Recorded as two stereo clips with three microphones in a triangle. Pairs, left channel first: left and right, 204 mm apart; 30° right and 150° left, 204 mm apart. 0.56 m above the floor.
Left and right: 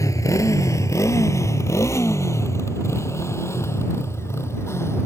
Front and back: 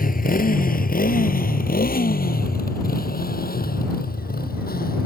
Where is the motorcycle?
15° left.